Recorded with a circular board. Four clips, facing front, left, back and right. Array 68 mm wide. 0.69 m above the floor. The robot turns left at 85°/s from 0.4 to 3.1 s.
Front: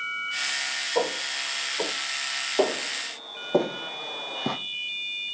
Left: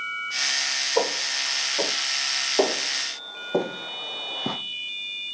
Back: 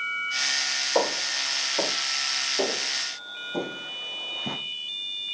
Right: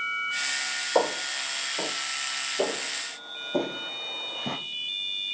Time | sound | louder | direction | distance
0.9 | footsteps | right 1 dB, back 2 dB | 120° right | 5 m
2.6 | footsteps | left 6 dB, front 5 dB | 65° left | 3 m